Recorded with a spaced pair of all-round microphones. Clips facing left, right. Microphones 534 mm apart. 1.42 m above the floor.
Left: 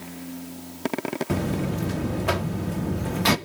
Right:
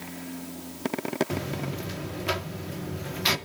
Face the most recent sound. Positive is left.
turn(degrees=70)  # may be behind; listen again after turning